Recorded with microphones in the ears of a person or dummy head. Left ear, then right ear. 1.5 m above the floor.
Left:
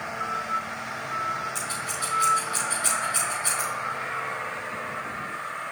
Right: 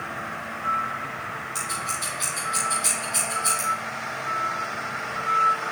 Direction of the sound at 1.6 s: 5° right (ahead or behind).